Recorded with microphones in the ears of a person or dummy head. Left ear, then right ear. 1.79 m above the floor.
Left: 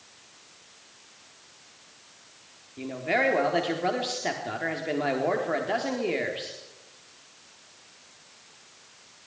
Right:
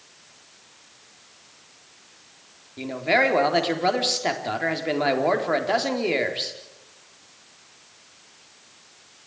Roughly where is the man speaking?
Right.